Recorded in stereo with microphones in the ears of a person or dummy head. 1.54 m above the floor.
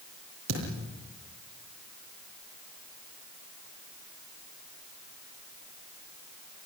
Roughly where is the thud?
Right.